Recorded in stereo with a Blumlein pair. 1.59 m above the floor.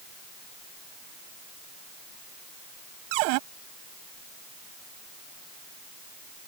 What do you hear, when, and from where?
3.1 s a cupboard door: 45° right